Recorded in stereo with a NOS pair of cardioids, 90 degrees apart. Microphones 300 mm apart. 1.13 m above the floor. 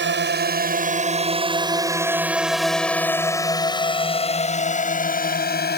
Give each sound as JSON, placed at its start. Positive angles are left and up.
{"t": 0.0, "sound": "a drone", "azimuth_deg": -40}